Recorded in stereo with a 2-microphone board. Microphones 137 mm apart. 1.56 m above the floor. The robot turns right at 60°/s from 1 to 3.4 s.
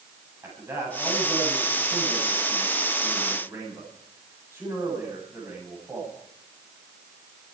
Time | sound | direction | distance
0.4 | a man speaking | 160° right | 10 m